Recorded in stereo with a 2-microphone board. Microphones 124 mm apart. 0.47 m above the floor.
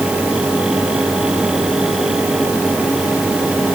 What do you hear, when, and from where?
Only background noise.